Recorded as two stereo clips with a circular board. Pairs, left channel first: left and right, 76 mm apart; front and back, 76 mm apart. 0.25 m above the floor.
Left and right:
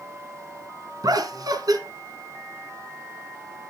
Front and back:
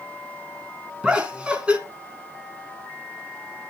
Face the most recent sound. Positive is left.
turn(degrees=-105)